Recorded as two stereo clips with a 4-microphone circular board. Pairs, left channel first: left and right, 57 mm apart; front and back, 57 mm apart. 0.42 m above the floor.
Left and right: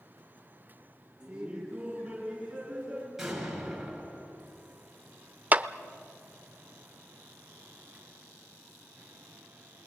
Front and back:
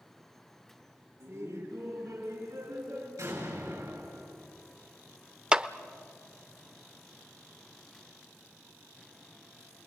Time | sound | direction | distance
1.2 | laughter | 160° right | 4.5 m
3.2 | an explosion | 175° right | 8 m
5.5 | a clap | 120° right | 0.6 m